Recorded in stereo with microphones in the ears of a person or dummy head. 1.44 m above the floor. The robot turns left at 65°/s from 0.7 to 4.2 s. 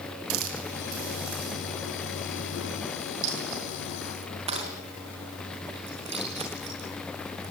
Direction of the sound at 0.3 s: 75° right.